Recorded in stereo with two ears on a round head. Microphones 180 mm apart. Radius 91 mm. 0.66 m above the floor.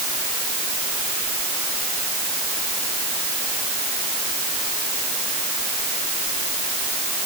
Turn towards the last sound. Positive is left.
No sound to turn to.